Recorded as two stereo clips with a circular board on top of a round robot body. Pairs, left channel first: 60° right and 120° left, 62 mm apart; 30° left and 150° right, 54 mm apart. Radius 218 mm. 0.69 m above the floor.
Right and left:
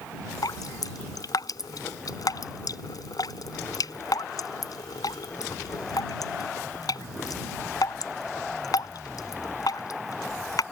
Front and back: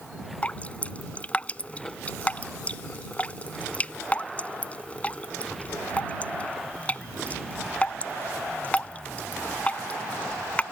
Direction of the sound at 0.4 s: 35° right.